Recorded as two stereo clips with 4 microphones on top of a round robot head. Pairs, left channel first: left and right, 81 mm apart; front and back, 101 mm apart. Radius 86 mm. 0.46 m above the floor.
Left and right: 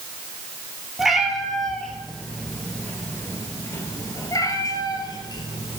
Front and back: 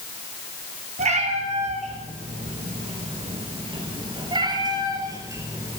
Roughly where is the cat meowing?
Behind.